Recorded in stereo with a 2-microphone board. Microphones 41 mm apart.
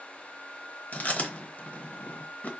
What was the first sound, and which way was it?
Chewing, 45° left (ahead or behind).